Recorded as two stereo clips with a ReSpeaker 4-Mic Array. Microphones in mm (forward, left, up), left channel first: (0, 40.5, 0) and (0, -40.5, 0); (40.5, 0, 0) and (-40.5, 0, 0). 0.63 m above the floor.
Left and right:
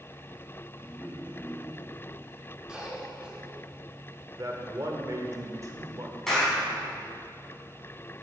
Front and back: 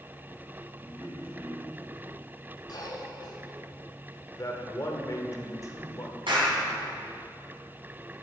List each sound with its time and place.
0.8 s a man speaking: 150° left, 2 m
2.7 s a cough: 10° right, 2 m
4.4 s a man speaking: 45° right, 1.4 m
6.3 s a clap: 175° left, 4 m